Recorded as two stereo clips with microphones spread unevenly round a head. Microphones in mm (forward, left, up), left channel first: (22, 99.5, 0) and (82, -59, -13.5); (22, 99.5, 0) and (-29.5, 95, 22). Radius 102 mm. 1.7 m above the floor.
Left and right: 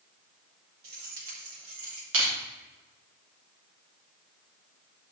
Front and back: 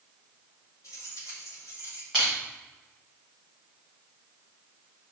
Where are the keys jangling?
50° right, 3.5 m; by 2.0 s 40° right, 3 m.